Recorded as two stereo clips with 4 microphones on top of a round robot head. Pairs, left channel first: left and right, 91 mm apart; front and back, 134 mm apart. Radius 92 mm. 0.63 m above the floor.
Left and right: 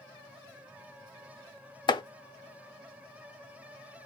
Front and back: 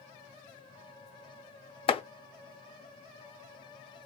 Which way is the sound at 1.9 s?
50° left.